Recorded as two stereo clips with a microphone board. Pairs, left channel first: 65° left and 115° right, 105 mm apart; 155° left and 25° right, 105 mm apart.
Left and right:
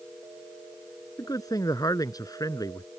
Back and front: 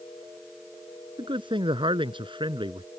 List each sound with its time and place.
1.2 s a man speaking: 15° left